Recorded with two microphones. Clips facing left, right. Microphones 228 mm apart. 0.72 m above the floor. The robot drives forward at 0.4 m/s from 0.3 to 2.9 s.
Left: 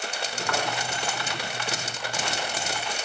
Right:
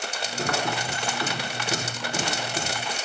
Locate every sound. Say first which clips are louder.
0.5 s a thud: even; 50° right (ahead or behind), 3.5 m